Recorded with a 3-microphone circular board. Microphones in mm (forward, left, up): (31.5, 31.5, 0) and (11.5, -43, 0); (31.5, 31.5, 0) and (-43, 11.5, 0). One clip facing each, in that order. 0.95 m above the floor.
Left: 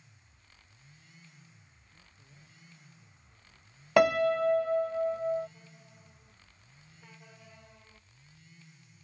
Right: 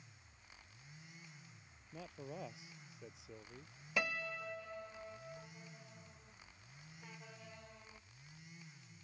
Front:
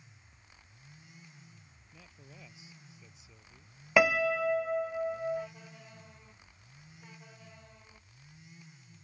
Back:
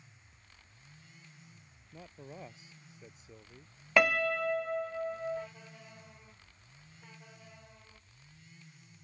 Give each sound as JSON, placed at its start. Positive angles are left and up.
{"t": 1.9, "sound": "a man speaking", "azimuth_deg": -115}
{"t": 4.0, "sound": "a piano", "azimuth_deg": 100}